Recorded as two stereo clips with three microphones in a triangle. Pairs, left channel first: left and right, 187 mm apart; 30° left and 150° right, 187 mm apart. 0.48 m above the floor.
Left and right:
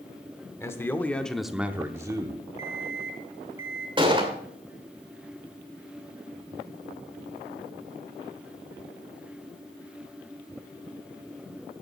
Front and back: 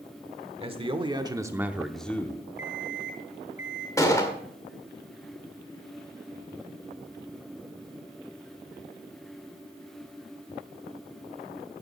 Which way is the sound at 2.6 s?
15° right.